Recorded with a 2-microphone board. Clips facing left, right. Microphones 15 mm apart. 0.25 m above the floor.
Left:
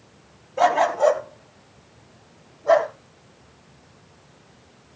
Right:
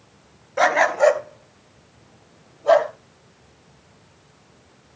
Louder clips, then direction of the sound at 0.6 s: Right 1 dB; 40° right (ahead or behind).